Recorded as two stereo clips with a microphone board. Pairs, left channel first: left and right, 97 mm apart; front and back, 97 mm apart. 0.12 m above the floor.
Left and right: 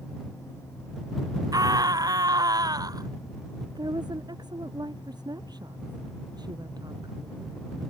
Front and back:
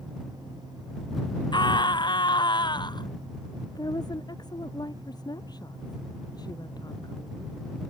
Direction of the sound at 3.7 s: 45° right.